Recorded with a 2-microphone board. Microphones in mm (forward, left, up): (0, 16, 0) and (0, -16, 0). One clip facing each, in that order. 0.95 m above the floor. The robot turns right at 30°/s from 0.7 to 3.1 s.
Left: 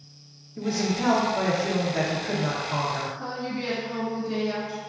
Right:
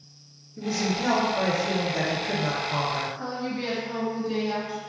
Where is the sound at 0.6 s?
120° left, 0.7 m; by 3.1 s 165° right, 0.7 m.